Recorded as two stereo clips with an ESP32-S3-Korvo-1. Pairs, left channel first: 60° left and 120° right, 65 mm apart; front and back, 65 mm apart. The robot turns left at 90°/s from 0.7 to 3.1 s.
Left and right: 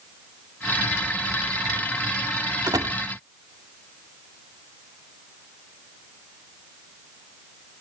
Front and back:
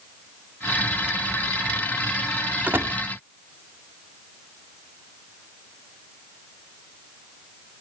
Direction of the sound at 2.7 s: 115° right.